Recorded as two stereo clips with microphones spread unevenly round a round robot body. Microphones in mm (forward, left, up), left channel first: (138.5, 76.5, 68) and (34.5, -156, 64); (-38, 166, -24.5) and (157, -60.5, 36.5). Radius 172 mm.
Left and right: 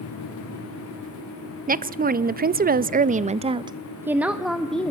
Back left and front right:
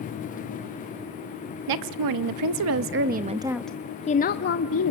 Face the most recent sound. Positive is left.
turn(degrees=150)